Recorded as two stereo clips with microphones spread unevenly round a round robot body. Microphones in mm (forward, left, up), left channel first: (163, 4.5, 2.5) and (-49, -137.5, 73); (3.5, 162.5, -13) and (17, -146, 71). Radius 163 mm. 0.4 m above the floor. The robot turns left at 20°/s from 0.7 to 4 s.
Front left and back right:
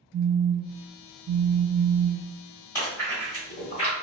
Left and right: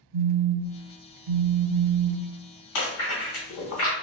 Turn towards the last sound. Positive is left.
turn(degrees=75)